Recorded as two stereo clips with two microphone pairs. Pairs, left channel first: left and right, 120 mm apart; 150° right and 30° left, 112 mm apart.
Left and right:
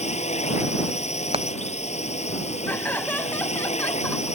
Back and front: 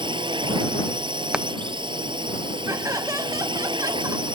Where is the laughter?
25° left.